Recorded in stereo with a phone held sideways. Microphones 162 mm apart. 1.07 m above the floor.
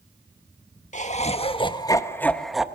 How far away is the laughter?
About 1.7 m.